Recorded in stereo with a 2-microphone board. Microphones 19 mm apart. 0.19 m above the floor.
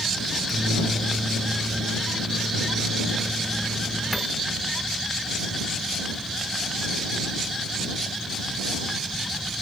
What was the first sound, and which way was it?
A microwave, 10° right (ahead or behind).